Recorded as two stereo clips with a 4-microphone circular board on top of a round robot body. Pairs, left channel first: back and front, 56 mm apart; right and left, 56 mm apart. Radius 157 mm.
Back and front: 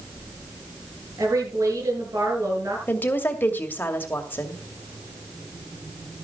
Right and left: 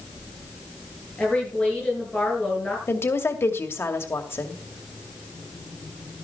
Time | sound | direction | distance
1.2 | a woman speaking | 20° right | 8 m
2.9 | a woman speaking | 125° right | 2.5 m